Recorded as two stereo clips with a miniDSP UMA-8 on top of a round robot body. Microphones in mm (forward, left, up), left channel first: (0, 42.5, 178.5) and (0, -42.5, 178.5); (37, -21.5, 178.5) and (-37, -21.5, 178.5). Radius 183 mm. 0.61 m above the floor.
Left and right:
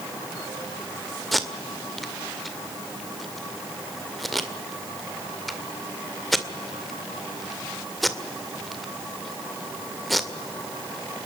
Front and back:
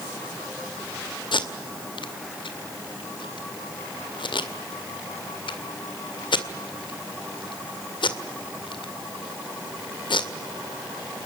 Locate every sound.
1.3 s tape being pulled: straight ahead, 2 m